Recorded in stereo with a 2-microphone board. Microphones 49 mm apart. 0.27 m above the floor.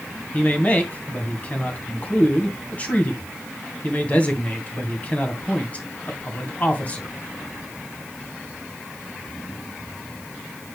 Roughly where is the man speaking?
Left.